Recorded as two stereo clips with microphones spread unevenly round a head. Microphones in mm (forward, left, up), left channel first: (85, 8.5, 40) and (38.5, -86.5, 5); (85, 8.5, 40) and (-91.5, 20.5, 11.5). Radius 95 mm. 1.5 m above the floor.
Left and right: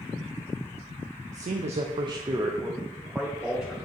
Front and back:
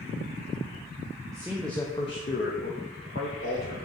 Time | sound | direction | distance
1.3 | a man speaking | 110° right | 0.5 m